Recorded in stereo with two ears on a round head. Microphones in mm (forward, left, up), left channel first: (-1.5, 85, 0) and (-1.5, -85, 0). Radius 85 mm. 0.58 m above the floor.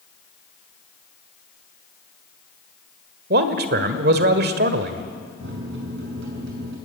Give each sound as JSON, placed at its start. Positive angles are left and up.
{"t": 3.3, "sound": "a man speaking", "side_deg": -55, "distance_m": 1.8}
{"t": 5.4, "sound": "a microwave", "side_deg": -65, "distance_m": 5.5}